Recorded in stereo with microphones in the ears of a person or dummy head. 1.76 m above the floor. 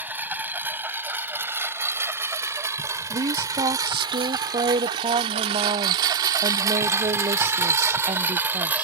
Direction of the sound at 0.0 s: 10° right (ahead or behind).